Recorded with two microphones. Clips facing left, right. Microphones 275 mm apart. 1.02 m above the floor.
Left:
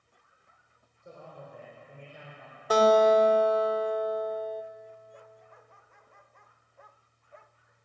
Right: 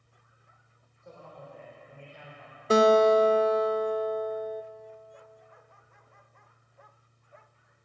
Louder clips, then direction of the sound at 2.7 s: Right 2 dB; 25° right (ahead or behind).